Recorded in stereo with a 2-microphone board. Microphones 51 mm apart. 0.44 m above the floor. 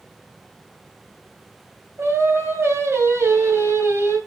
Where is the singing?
60° right (ahead or behind), 3 m.